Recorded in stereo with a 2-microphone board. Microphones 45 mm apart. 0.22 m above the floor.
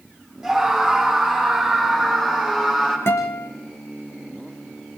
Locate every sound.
0.4 s a scream: 5° right (ahead or behind), 10 m; by 3.0 s 5° left (ahead or behind), 11.5 m
3.1 s a guitar: 60° left (ahead or behind), 4.5 m